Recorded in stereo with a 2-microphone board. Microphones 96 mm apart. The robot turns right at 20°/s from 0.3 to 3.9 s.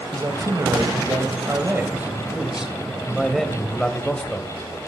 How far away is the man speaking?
About 1.9 m.